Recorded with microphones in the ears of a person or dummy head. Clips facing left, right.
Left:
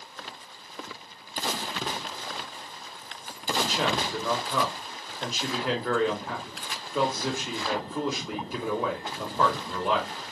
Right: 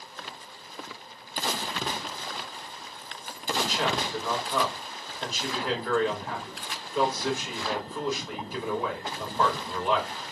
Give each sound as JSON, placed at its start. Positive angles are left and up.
{"t": 3.5, "sound": "a man speaking", "side_deg": 70, "distance_m": 2.5}